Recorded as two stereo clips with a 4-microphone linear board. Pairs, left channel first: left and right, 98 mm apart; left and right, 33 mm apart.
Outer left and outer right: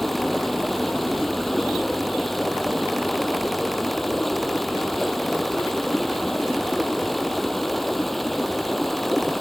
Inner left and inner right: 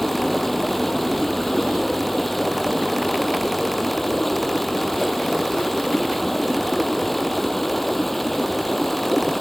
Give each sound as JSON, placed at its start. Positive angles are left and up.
{"t": 0.0, "sound": "running water", "side_deg": 0}